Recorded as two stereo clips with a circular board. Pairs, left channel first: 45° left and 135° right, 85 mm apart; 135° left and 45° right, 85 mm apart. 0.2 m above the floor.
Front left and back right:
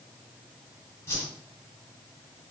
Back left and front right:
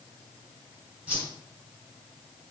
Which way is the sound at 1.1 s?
15° left.